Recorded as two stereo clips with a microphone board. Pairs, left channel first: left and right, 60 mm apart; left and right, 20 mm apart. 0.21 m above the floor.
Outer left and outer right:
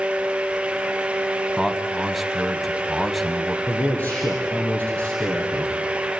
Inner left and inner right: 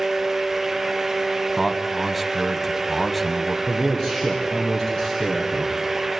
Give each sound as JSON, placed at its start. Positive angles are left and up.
{"t": 1.6, "sound": "a man speaking", "side_deg": -5, "distance_m": 1.2}
{"t": 3.7, "sound": "a man speaking", "side_deg": 25, "distance_m": 3.0}